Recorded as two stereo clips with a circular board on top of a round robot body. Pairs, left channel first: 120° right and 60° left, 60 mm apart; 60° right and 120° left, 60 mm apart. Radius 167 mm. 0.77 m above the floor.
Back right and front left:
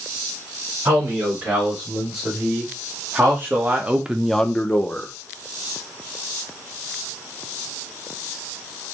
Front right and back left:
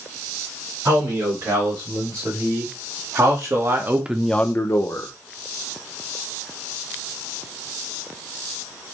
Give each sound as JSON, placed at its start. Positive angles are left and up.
{"t": 0.8, "sound": "a man speaking", "azimuth_deg": 115, "distance_m": 3.5}